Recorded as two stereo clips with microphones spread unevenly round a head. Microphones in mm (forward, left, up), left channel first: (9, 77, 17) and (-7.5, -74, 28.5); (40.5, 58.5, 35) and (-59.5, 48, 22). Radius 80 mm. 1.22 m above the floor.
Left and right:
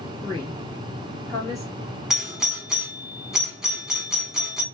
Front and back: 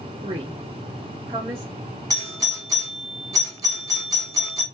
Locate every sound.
0.2 s a woman speaking: 155° left, 1.6 m
2.1 s a doorbell: 175° left, 1.1 m